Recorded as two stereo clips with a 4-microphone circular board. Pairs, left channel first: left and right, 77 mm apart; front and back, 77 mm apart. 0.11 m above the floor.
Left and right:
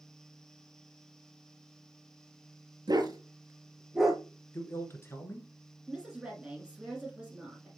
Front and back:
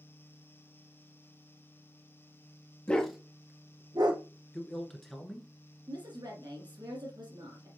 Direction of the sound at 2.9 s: 70° right.